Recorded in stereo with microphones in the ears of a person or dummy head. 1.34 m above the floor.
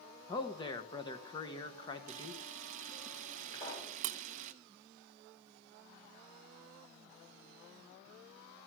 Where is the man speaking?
25° left (ahead or behind), 1.2 m.